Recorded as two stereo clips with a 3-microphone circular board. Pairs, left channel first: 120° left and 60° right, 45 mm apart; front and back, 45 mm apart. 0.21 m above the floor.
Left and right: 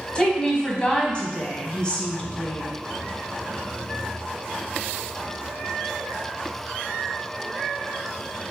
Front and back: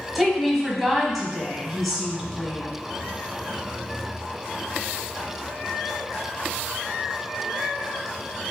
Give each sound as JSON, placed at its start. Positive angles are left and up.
{"t": 0.1, "sound": "a woman speaking", "azimuth_deg": 95, "distance_m": 1.1}